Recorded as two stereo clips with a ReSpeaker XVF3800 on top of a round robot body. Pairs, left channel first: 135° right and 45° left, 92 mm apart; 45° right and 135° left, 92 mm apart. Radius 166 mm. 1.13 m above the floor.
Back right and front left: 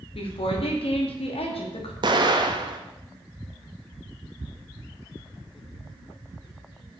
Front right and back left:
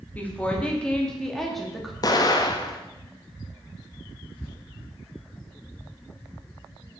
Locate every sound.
0.1 s a woman speaking: 120° right, 3 m; by 1.9 s 140° right, 2.5 m
2.0 s an explosion: 5° left, 1.2 m